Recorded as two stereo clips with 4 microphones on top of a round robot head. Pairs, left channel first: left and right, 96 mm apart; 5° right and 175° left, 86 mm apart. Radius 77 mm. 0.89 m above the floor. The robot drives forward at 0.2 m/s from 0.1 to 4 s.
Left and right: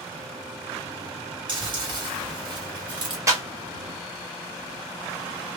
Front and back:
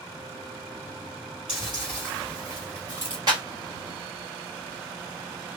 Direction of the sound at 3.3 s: 145° right.